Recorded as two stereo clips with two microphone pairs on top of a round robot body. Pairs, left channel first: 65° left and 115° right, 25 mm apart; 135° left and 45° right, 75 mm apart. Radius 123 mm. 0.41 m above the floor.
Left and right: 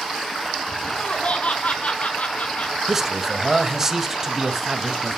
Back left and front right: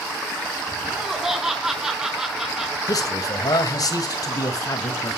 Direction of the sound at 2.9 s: 170° left.